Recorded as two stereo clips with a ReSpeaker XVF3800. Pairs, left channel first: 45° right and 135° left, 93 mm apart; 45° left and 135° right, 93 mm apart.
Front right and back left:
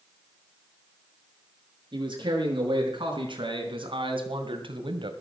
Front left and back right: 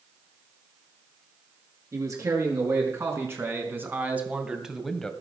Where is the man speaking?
170° left, 6 m; by 5.1 s 125° left, 1.9 m.